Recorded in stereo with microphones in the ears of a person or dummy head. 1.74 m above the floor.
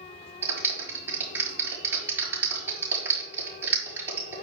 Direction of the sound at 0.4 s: 15° right (ahead or behind).